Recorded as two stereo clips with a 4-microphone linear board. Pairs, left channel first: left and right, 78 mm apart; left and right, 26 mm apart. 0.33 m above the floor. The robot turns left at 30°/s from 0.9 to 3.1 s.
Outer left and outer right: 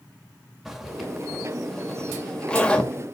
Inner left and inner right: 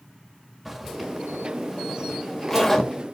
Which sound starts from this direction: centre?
A zipper, at 0.7 s.